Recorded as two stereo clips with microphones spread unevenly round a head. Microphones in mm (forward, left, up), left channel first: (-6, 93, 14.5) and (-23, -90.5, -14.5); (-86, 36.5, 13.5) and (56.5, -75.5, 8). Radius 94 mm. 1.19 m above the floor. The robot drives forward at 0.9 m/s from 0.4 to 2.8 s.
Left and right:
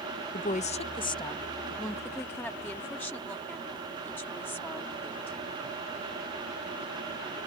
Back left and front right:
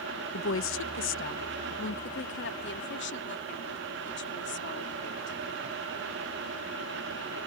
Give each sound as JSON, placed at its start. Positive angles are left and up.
{"t": 0.3, "sound": "a woman speaking", "azimuth_deg": 135}